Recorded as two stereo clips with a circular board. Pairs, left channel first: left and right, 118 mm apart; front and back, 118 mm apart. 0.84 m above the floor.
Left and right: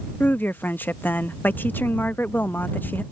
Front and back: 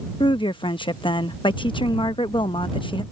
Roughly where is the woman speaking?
Ahead.